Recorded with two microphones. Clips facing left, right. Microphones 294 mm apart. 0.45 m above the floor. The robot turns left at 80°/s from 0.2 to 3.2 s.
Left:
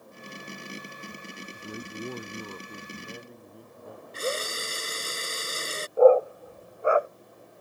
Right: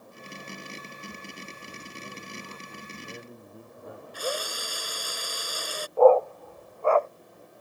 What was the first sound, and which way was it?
A man speaking, 125° left.